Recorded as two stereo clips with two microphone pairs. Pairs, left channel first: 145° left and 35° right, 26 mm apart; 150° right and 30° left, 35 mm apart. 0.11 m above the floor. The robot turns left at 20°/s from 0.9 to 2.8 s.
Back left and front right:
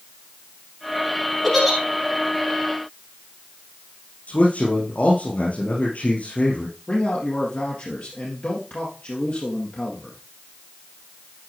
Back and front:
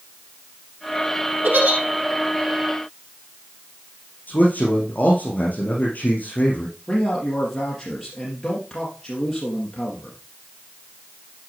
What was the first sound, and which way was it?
A giggle, 60° left.